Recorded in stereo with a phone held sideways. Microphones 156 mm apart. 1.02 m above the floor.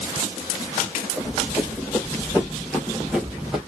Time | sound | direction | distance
1.2 | running footsteps | centre (ahead or behind) | 3 m